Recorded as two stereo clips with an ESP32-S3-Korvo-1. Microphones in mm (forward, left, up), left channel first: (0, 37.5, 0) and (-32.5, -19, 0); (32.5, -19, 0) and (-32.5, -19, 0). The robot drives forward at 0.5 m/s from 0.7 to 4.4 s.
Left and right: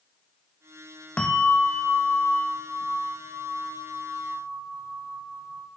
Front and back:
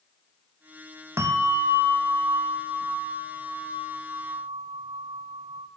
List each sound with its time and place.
1.2 s a bell: 140° left, 1.1 m; by 5.7 s 165° left, 2.5 m